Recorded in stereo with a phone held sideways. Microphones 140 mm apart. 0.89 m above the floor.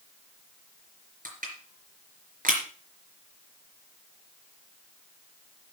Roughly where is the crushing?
Right.